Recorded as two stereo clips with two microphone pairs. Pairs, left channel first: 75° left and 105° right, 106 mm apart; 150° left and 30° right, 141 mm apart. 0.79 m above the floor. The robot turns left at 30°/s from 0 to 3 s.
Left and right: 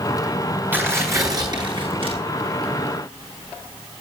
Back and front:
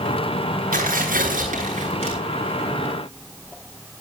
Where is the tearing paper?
30° right, 9.5 m; by 2.1 s 75° right, 9.5 m.